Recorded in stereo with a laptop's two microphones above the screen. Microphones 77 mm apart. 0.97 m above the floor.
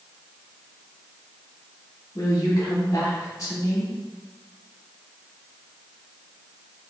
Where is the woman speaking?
50° left (ahead or behind), 1.9 m.